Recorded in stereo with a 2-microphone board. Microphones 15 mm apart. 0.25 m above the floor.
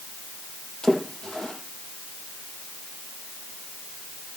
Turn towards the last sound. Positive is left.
turn(degrees=75)  # may be behind; listen again after turning